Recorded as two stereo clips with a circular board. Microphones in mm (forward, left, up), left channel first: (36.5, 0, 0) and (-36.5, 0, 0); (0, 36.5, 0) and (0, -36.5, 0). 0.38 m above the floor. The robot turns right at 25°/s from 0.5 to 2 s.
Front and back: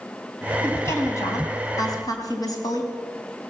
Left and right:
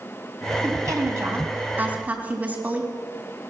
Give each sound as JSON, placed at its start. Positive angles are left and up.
{"t": 0.6, "sound": "a woman speaking", "azimuth_deg": -55, "distance_m": 3.5}